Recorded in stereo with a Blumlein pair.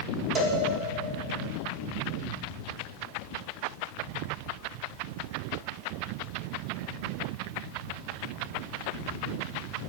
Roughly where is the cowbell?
Ahead right.